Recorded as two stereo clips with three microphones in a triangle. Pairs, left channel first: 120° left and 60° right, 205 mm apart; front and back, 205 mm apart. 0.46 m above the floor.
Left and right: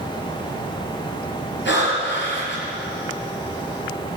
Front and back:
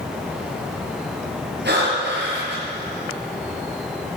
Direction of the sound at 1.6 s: 145° left.